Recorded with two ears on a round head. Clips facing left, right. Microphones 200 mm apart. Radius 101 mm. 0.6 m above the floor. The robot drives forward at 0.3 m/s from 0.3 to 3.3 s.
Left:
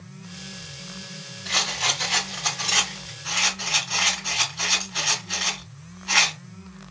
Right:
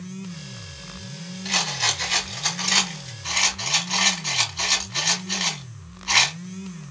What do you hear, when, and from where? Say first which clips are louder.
1.4 s a rattle: even; 60° right (ahead or behind), 2.5 m; by 6.4 s 65° right (ahead or behind), 2.5 m